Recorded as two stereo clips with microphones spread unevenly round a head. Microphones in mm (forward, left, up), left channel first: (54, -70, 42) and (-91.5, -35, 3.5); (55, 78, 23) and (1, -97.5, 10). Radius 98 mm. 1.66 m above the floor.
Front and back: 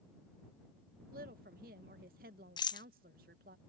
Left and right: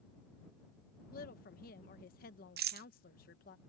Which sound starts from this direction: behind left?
A woman speaking, at 1.1 s.